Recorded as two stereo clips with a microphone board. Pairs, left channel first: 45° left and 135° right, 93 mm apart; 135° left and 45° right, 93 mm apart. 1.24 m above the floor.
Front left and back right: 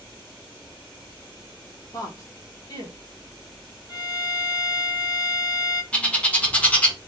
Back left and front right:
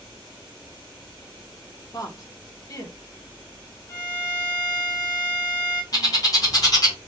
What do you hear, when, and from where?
1.9 s a woman speaking: 90° left, 0.8 m
3.9 s a violin: 90° left, 2 m
5.9 s a bird: 110° left, 1.1 m